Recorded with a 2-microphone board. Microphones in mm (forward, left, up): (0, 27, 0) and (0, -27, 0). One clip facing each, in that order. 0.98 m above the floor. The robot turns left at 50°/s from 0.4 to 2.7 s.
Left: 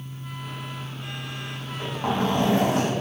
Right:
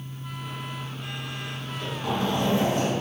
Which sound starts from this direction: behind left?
A zipper, at 1.6 s.